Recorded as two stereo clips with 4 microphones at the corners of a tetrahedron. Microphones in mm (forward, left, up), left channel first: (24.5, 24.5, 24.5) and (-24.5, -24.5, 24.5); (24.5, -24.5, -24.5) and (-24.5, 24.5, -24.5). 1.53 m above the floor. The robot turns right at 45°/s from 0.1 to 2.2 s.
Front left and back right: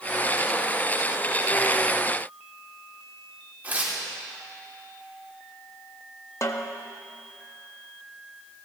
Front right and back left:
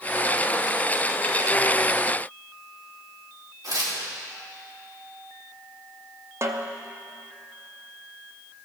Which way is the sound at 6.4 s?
85° left.